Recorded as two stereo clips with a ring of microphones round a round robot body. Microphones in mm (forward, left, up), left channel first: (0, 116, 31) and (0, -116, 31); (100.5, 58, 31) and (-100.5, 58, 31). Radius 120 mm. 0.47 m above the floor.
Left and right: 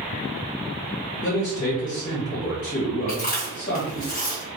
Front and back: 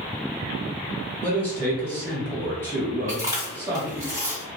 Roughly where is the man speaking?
Behind left.